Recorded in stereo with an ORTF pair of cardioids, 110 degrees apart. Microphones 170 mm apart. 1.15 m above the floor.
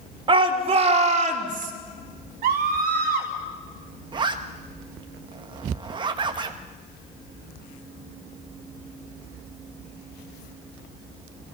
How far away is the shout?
About 3 m.